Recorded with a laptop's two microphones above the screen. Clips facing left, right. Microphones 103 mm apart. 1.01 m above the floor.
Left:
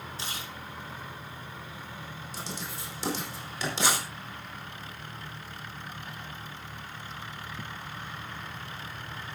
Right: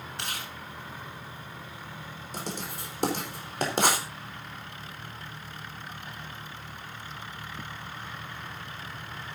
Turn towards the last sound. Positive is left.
turn(degrees=-55)  # may be behind; listen again after turning